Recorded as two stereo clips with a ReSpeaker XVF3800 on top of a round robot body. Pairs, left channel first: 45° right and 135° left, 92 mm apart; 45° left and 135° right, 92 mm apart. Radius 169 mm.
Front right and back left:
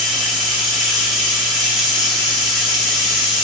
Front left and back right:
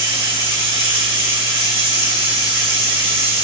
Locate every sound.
0.0 s running water: 135° right, 2 m